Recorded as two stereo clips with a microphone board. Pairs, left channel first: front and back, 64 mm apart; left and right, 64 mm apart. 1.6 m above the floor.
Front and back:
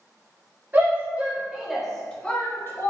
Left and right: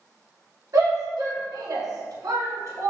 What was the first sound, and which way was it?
A shout, 115° right.